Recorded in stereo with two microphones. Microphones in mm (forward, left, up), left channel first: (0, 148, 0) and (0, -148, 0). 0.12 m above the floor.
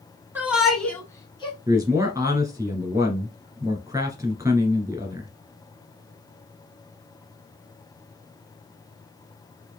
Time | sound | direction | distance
0.3 | a shout | 5° right (ahead or behind) | 1.2 m
1.7 | a man speaking | 10° right (ahead or behind) | 1.5 m